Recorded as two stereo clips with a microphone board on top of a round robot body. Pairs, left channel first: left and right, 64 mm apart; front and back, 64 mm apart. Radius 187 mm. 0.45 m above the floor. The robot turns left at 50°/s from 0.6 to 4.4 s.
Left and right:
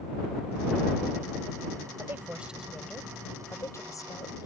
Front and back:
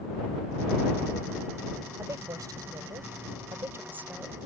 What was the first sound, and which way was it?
A woman speaking, 140° right.